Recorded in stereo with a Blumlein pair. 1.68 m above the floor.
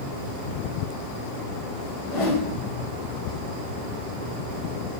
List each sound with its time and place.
2.0 s a whoosh: 45° left, 0.9 m